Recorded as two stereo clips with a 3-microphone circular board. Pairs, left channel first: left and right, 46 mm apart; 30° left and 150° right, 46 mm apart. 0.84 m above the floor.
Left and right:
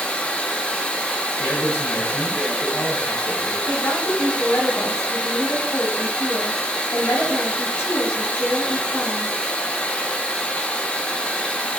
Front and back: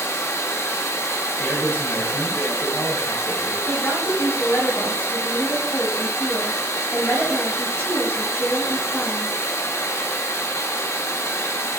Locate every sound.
0.0 s running water: 25° left, 1.1 m
1.4 s a man speaking: 80° left, 3 m
3.7 s a woman speaking: 70° left, 4.5 m